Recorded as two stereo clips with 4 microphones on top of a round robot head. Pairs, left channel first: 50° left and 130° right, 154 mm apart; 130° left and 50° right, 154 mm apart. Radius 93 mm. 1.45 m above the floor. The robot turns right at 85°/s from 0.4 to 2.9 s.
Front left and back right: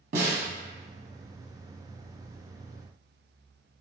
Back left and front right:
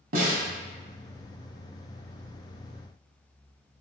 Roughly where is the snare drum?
Right.